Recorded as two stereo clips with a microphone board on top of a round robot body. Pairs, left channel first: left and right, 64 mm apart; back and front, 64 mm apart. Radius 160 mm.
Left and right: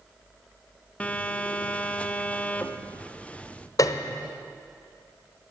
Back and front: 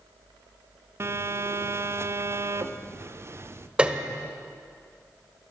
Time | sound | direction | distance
1.0 | a phone buzzing | 25° left | 1.4 m
3.8 | a piano | 75° left | 1.5 m